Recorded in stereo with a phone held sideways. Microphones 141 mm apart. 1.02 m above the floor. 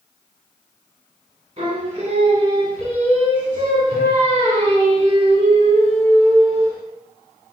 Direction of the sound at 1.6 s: 45° right (ahead or behind).